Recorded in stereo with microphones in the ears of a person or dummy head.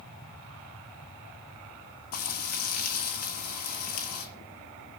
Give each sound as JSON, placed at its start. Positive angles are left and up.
{"t": 2.1, "sound": "frying", "side_deg": 50, "distance_m": 3.0}